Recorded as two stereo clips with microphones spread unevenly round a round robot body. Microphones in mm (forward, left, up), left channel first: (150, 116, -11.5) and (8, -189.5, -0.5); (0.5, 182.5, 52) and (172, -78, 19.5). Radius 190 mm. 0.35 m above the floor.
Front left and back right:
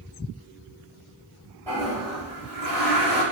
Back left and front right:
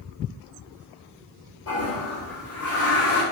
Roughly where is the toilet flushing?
Behind left.